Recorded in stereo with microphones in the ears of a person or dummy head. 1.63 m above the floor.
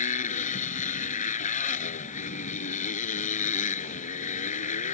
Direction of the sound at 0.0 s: 45° left (ahead or behind).